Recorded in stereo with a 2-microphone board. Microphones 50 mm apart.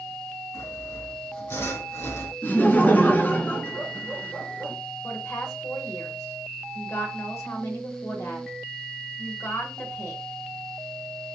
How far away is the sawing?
About 2 m.